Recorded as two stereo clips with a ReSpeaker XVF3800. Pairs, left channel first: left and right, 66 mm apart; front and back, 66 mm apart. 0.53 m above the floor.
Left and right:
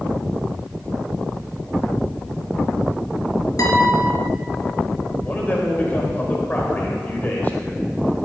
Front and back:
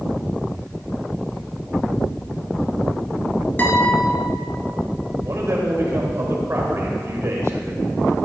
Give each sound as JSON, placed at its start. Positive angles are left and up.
{"t": 3.6, "sound": "a guitar", "azimuth_deg": 60, "distance_m": 2.5}
{"t": 5.2, "sound": "a man speaking", "azimuth_deg": 145, "distance_m": 2.5}